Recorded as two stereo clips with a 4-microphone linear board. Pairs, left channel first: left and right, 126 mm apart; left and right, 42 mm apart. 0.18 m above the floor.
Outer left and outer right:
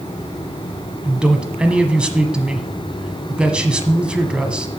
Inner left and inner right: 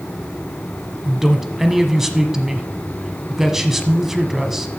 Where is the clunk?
No clunk in this recording.